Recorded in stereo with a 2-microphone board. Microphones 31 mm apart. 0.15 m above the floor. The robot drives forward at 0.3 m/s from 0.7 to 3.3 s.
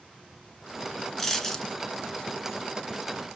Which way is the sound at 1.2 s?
15° left (ahead or behind).